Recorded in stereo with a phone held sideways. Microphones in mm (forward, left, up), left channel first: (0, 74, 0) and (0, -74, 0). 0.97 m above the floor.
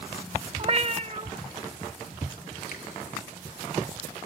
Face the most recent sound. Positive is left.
turn(degrees=65)  # may be behind; listen again after turning